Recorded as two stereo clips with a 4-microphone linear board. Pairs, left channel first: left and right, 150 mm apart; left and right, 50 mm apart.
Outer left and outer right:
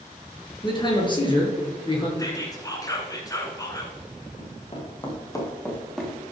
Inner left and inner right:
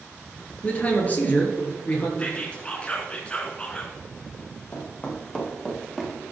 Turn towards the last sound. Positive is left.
turn(degrees=-5)  # may be behind; listen again after turning